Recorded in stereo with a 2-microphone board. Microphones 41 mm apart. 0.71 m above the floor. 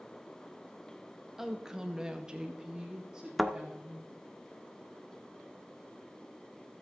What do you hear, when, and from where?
1.4 s a woman speaking: 10° right (ahead or behind), 1.2 m; by 4.1 s 15° right (ahead or behind), 2.5 m
3.4 s a thud: centre (ahead or behind), 0.7 m